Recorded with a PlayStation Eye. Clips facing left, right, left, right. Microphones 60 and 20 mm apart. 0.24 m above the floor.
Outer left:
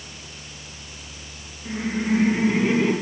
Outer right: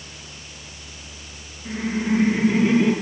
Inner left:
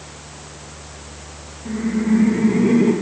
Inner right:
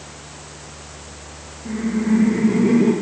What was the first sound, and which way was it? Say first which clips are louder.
Laughter: outer right 1 dB, inner left 1 dB; 10° right (ahead or behind).